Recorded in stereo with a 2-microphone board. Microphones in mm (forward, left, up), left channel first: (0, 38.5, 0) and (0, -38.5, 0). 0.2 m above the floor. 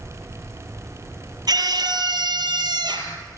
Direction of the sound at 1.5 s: 60° right (ahead or behind).